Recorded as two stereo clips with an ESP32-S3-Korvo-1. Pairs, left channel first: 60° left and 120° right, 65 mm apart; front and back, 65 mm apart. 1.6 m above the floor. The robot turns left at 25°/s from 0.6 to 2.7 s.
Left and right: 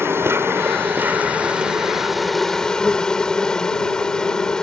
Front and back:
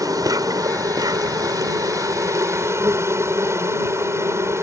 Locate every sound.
0.0 s an insect: 170° right; by 4.6 s 140° left